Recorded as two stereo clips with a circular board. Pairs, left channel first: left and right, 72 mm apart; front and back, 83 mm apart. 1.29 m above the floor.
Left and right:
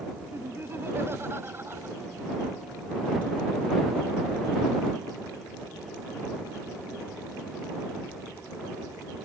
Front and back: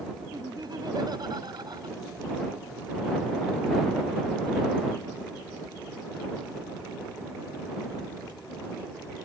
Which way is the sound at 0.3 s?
145° right.